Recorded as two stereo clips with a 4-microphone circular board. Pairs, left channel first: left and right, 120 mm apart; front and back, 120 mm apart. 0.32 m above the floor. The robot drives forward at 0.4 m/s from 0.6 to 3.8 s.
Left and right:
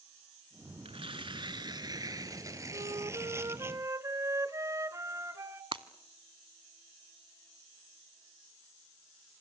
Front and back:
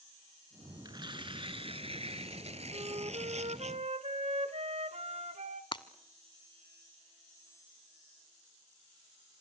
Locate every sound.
0.8 s tearing paper: 125° right, 0.8 m; by 3.7 s 160° right, 1.7 m
2.7 s a flute: 135° right, 0.5 m; by 5.6 s 155° right, 0.9 m
5.7 s breaking glass: 45° right, 0.9 m